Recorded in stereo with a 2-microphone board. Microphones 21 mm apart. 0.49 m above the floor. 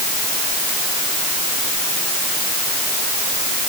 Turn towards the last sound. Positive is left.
No sound to turn to.